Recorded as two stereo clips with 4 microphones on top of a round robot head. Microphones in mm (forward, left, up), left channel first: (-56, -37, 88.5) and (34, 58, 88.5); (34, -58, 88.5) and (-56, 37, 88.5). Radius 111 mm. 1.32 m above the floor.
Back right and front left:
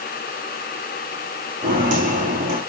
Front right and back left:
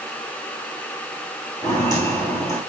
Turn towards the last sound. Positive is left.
turn(degrees=20)